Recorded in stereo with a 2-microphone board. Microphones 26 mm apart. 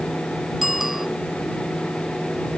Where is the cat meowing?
I don't hear a cat meowing.